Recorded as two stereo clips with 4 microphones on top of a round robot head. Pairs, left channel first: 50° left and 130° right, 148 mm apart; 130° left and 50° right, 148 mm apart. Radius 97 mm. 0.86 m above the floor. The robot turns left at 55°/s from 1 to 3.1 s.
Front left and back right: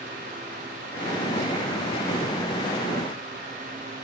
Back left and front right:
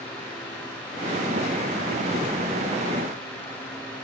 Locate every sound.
Only background noise.